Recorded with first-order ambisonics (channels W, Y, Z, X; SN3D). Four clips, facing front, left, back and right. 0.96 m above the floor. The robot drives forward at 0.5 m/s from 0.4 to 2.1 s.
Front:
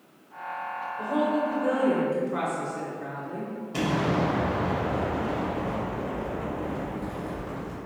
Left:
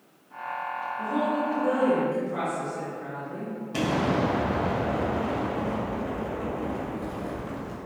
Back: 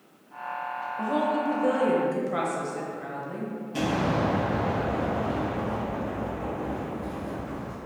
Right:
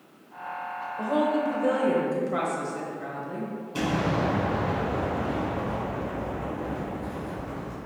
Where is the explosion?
70° left, 1.7 m.